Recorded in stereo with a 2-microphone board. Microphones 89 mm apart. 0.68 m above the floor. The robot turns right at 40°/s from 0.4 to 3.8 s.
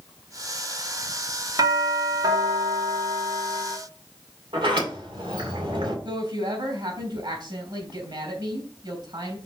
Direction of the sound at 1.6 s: 115° right.